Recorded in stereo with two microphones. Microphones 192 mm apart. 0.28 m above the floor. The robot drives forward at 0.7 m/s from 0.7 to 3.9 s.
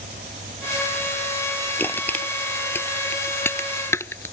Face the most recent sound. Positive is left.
turn(degrees=10)  # may be behind; listen again after turning